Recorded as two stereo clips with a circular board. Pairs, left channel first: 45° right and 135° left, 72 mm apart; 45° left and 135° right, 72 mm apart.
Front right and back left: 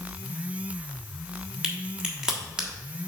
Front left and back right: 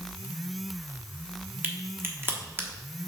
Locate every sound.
1.6 s a crack: 155° right, 1.3 m